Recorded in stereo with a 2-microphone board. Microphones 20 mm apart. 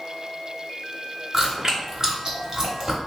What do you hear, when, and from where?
1.3 s chewing: 30° right (ahead or behind), 1.1 m